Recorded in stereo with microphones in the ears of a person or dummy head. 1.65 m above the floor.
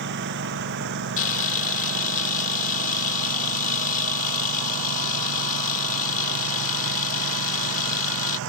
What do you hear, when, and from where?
0.0 s a lawn mower: 60° right (ahead or behind); by 8.5 s 75° right (ahead or behind)
1.2 s a camera shutter: 45° left (ahead or behind)